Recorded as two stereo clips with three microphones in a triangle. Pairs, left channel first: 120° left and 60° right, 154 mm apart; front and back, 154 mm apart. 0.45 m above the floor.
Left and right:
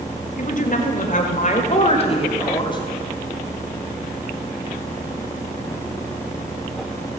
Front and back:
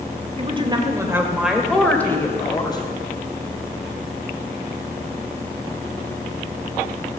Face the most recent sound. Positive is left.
turn(degrees=60)